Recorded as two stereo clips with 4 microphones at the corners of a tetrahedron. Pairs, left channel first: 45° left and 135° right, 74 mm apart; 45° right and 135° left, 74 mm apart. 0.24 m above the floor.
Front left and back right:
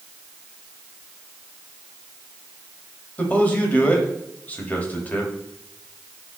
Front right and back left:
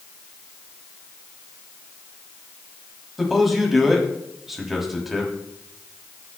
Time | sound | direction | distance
3.2 | a man speaking | 50° left | 1.4 m